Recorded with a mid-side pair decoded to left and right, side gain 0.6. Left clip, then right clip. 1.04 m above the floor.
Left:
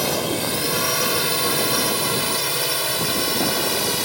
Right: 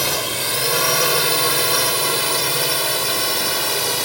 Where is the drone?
20° right; by 4.0 s 10° right.